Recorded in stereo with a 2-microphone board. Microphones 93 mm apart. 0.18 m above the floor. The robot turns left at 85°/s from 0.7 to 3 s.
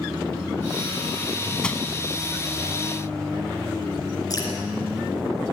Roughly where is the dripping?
Left.